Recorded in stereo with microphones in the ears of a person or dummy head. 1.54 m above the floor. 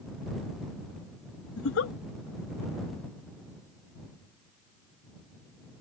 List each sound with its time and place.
1.6 s a giggle: 65° left (ahead or behind)